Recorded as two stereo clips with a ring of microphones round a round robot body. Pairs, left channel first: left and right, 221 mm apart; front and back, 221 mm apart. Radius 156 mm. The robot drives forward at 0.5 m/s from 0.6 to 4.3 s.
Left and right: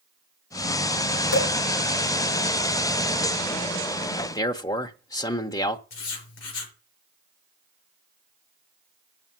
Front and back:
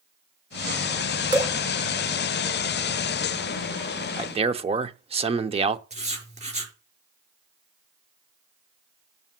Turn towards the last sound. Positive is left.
turn(degrees=120)